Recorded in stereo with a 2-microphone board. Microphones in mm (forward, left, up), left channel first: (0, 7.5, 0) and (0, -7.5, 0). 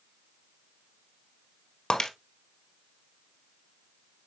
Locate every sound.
1.9 s breaking glass: 55° left (ahead or behind), 1.5 m